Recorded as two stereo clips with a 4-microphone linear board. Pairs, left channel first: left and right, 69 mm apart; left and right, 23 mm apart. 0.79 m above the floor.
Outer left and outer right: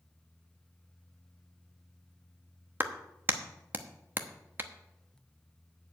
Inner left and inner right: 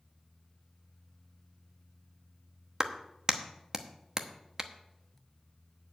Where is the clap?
30° right (ahead or behind), 0.9 m.